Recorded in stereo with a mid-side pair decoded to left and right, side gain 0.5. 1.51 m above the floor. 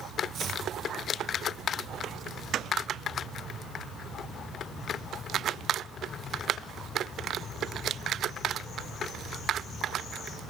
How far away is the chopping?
About 0.9 m.